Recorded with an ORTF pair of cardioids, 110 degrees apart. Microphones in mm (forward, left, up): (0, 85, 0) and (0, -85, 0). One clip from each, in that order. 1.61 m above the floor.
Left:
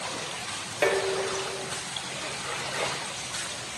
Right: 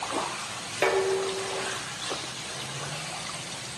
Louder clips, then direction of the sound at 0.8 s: Right 1 dB; 5° right.